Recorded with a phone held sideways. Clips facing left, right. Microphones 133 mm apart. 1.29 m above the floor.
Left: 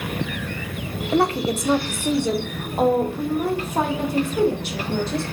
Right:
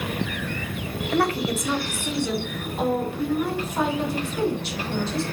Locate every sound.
1.1 s a woman speaking: 20° left (ahead or behind), 0.9 m; by 5.2 s 55° left (ahead or behind), 3 m